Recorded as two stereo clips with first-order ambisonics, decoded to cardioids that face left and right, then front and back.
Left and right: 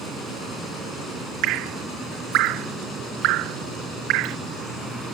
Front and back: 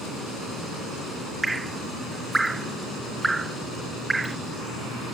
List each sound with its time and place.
1.4 s dripping: 100° right